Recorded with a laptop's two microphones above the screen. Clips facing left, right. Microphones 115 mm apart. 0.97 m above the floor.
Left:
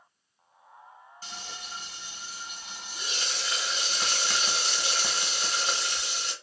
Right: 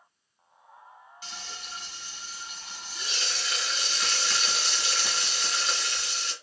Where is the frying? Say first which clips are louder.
Left 1 dB; 35° left (ahead or behind), 1.1 m.